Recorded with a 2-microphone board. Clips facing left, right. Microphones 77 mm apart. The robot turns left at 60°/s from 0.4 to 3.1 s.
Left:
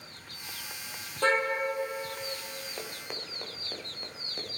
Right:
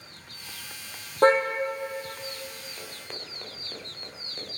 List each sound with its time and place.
1.2 s a car horn: 40° right (ahead or behind), 2.5 m; by 1.4 s 30° right (ahead or behind), 2.5 m
2.8 s running footsteps: 30° left (ahead or behind), 2 m; by 4.5 s 10° left (ahead or behind), 3.5 m